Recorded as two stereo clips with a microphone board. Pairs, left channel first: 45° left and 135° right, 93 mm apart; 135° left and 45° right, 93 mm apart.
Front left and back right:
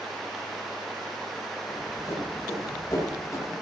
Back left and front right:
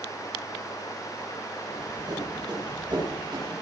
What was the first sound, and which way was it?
Running footsteps, 5° right.